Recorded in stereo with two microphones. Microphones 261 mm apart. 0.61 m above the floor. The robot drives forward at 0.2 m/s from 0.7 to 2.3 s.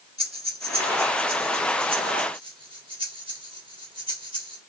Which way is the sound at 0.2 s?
20° right (ahead or behind).